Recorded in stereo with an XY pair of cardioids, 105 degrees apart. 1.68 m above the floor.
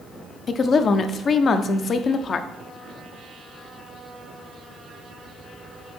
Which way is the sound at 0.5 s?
50° left.